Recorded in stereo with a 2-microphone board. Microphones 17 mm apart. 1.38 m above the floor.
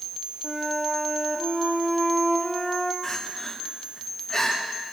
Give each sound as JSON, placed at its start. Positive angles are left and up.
{"t": 0.4, "sound": "a flute", "side_deg": -5, "distance_m": 1.4}
{"t": 3.0, "sound": "crying", "side_deg": 15, "distance_m": 2.5}